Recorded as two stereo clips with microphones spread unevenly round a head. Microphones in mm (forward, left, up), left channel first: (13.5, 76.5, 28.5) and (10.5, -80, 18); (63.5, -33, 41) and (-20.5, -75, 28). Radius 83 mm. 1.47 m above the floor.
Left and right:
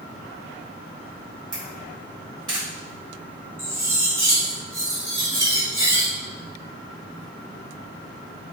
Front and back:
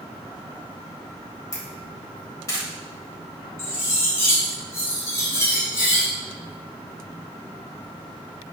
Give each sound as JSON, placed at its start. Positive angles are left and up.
{"t": 1.5, "sound": "a camera shutter", "azimuth_deg": -25, "distance_m": 1.7}
{"t": 3.6, "sound": "cutlery clinking", "azimuth_deg": -20, "distance_m": 1.2}